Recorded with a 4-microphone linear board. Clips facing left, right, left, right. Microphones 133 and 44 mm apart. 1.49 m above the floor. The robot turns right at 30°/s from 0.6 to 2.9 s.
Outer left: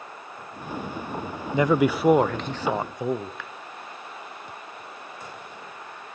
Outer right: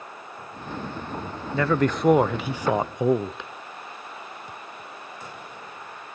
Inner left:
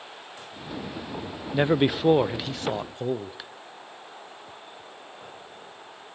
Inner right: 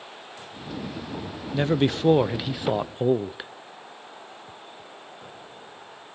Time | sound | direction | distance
1.5 | a man speaking | 160° left | 0.6 m